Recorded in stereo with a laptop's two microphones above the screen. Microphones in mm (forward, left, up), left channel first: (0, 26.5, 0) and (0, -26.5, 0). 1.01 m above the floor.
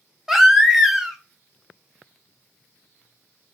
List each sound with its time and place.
0.3 s a baby crying: 10° right (ahead or behind), 0.6 m